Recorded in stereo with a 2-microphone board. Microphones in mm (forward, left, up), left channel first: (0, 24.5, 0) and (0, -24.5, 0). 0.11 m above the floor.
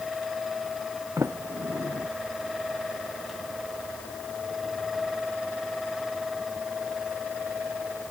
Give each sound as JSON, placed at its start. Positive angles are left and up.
{"t": 1.2, "sound": "a sliding door", "side_deg": -85}